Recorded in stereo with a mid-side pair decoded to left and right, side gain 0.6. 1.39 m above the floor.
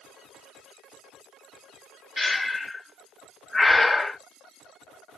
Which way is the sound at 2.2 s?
10° left.